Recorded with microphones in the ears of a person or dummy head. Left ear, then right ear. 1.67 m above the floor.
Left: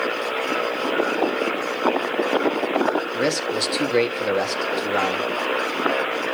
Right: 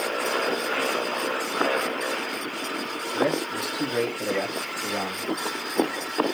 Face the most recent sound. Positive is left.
turn(degrees=60)  # may be behind; listen again after turning